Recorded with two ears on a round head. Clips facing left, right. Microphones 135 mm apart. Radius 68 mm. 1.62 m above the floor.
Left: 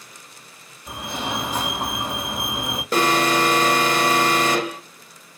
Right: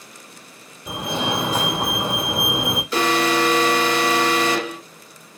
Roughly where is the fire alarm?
Right.